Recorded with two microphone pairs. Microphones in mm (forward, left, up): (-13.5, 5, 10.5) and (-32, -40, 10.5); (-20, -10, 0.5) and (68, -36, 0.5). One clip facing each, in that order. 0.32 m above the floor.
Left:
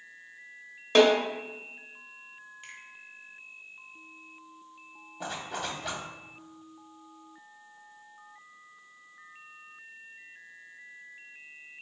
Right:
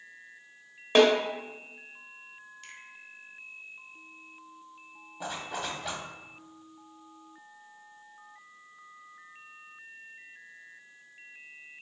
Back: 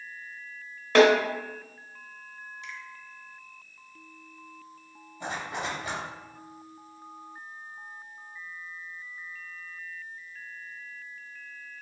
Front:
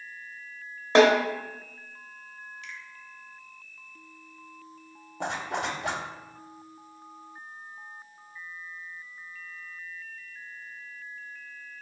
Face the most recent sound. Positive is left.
turn(degrees=-30)